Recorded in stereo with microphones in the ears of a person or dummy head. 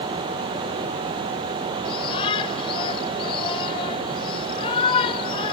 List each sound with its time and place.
1.9 s a shout: 30° left (ahead or behind)